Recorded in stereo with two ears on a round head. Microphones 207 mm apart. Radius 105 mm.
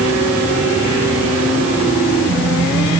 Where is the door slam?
I don't hear a door slam.